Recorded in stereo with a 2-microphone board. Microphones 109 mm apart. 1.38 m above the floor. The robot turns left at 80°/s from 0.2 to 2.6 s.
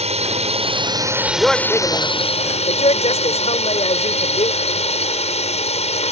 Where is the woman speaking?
170° right; by 4.5 s 90° left.